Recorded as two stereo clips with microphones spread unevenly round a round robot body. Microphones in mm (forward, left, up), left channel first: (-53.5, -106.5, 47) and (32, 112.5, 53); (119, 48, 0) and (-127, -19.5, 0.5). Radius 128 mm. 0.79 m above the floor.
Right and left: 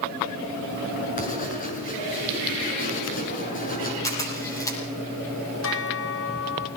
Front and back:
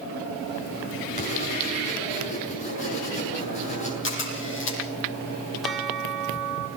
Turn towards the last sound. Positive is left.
turn(degrees=-75)